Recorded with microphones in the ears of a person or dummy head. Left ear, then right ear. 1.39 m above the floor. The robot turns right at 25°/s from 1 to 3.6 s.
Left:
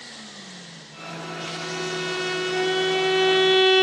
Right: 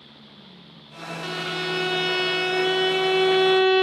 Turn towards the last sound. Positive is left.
turn(degrees=15)